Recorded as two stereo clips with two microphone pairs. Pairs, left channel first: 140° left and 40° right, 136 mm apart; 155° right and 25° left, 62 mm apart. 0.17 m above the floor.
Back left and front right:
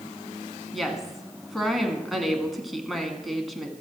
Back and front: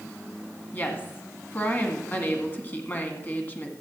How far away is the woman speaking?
About 1.5 m.